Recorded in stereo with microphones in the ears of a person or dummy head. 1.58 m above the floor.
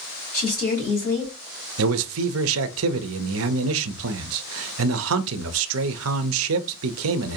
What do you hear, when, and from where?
0.3 s a woman speaking: 45° left (ahead or behind), 3 m
1.8 s a man speaking: 75° right (ahead or behind), 0.5 m